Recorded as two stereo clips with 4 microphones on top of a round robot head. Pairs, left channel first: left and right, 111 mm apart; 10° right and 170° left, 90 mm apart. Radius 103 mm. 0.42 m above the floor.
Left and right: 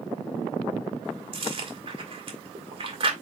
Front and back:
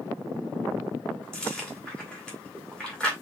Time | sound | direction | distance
1.3 | chewing | 90° right | 2.0 m